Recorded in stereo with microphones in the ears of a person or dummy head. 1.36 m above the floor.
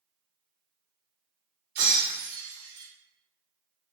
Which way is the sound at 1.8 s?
60° right (ahead or behind).